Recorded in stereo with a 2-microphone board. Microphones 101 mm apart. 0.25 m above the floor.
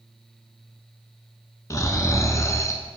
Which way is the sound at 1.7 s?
35° left (ahead or behind).